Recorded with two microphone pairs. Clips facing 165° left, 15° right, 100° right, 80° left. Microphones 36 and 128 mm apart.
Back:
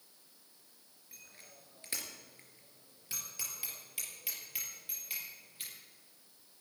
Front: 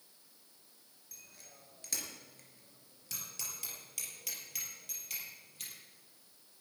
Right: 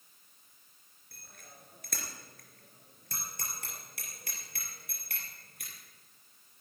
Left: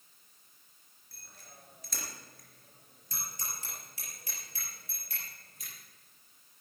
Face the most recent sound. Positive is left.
turn(degrees=-125)